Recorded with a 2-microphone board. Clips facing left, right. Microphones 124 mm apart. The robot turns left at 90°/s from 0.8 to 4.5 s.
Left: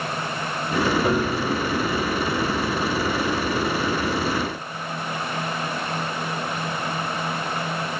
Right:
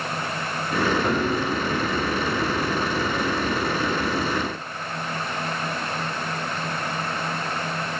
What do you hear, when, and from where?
1.0 s a piano: 5° left, 1.4 m; by 1.5 s 40° right, 1.4 m